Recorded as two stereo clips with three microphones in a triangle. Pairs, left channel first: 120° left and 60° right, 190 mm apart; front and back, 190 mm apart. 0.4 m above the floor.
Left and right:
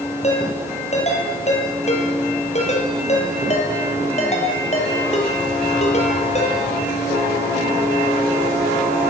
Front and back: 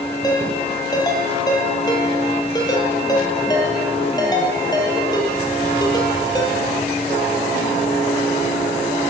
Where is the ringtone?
70° left, 7 m.